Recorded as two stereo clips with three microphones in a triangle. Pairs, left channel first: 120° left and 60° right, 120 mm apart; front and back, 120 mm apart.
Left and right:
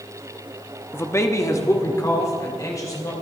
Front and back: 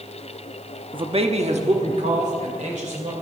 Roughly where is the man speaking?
Behind.